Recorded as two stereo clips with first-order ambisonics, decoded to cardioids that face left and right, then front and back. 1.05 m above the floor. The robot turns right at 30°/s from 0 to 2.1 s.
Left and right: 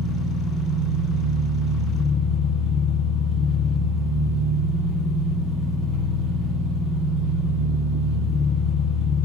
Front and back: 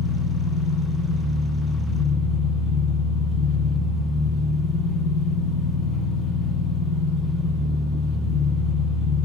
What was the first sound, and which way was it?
An engine running, 10° right.